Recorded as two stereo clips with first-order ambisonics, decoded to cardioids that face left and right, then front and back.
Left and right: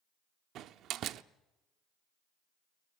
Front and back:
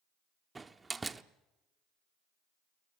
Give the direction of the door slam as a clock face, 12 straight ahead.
4 o'clock.